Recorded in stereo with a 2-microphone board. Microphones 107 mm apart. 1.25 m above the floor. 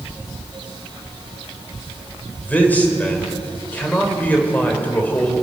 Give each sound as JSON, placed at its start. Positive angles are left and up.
{"t": 2.4, "sound": "a man speaking", "side_deg": 15, "distance_m": 4.0}